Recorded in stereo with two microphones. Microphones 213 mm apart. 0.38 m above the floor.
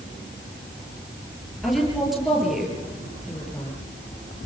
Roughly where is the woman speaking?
Centre.